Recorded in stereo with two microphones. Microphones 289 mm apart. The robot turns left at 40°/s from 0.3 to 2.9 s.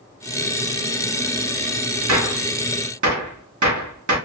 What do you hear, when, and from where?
2.1 s a gunshot: 65° right (ahead or behind), 0.8 m; by 4.2 s 80° right, 0.8 m